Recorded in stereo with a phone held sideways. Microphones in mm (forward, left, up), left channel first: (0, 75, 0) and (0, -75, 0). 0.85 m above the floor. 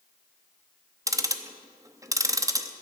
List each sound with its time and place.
1.1 s ticking: 20° right (ahead or behind), 0.8 m